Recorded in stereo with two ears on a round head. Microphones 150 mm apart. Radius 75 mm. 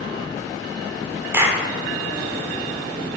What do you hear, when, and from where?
1.3 s a clap: 15° right (ahead or behind), 1.4 m